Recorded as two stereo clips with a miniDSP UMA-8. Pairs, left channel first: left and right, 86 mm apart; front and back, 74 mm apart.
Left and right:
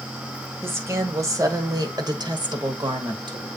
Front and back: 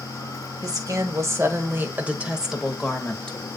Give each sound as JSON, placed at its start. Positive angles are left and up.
{"t": 0.6, "sound": "a woman speaking", "azimuth_deg": -150, "distance_m": 1.9}